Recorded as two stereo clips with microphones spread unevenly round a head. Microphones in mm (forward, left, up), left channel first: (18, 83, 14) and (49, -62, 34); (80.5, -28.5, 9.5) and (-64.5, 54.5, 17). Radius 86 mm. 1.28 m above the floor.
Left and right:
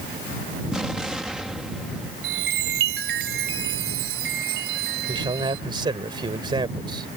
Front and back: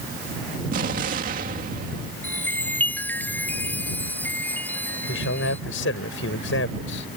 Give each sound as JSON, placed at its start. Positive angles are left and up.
{"t": 0.7, "sound": "an explosion", "azimuth_deg": -165}
{"t": 2.2, "sound": "a chime", "azimuth_deg": -110}
{"t": 5.1, "sound": "a man speaking", "azimuth_deg": -20}